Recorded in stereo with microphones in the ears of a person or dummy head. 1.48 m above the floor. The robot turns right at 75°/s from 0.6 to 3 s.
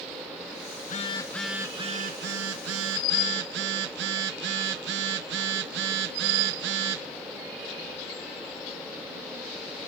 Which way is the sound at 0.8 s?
130° left.